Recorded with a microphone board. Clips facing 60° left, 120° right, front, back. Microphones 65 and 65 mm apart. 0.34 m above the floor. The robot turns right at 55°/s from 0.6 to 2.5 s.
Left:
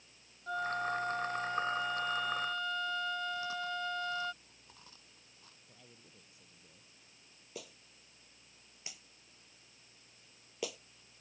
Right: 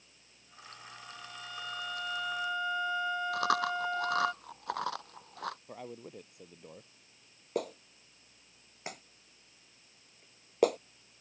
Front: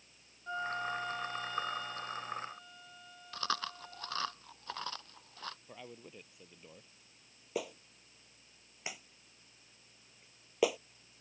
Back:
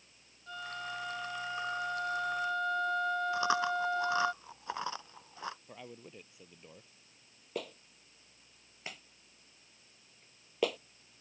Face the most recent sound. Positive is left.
turn(degrees=-80)